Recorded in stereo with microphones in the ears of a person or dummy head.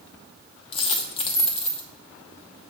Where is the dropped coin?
30° left (ahead or behind), 0.8 m.